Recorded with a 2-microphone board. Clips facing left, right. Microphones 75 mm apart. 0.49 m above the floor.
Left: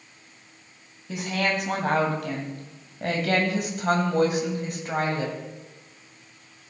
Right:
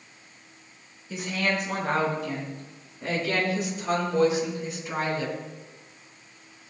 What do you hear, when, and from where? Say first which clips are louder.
1.1 s a woman speaking: left 1 dB; 70° left (ahead or behind), 3.5 m; by 5.3 s 45° left (ahead or behind), 3 m